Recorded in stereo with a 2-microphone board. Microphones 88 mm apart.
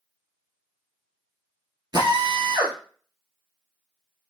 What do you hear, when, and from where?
1.9 s a drill: 55° right (ahead or behind), 1.6 m